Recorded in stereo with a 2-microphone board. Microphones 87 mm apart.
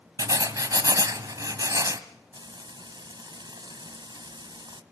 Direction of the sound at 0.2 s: 45° right (ahead or behind).